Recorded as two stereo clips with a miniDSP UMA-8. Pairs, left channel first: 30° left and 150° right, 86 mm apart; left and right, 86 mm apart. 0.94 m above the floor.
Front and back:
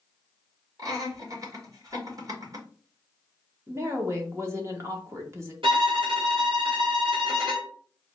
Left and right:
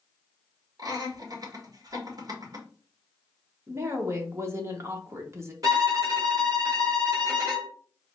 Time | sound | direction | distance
0.8 | laughter | 115° right | 1.4 m
3.7 | a woman speaking | 120° right | 0.9 m
5.6 | a violin | 135° right | 1.6 m